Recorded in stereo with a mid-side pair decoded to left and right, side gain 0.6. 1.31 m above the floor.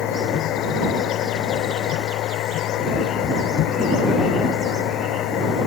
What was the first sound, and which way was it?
A machine running, 60° left.